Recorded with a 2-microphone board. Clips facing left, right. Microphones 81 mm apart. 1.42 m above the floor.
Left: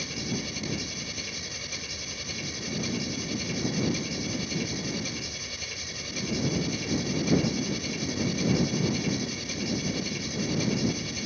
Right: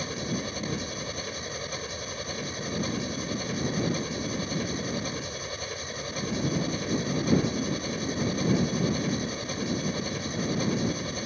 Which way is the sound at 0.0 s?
40° right (ahead or behind).